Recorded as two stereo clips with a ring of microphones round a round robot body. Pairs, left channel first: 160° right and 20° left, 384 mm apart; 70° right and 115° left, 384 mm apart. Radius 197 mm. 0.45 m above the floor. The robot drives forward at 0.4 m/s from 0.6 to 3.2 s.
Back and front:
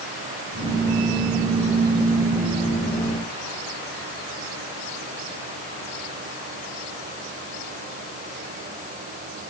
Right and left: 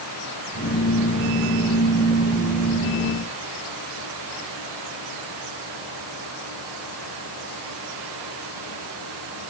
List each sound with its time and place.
Only background noise.